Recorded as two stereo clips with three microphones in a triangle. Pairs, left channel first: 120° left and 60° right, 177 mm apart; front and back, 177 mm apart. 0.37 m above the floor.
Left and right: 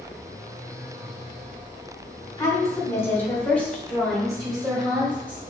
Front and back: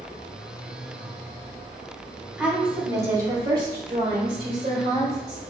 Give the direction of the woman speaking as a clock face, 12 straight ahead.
8 o'clock.